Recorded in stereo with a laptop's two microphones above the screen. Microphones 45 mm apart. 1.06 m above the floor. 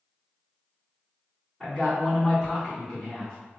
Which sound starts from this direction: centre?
A man speaking, at 1.6 s.